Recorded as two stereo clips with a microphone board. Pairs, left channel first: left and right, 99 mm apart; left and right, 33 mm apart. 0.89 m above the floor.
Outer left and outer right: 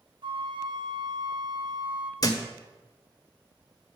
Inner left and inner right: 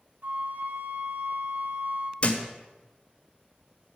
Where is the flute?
55° right (ahead or behind), 1.4 m.